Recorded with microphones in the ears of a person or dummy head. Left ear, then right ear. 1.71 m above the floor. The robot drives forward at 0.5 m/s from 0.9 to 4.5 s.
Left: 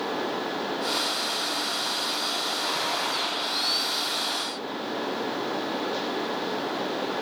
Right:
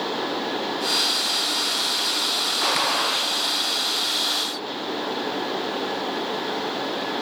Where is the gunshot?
55° right (ahead or behind), 0.6 m; by 3.4 s 50° right (ahead or behind), 0.7 m.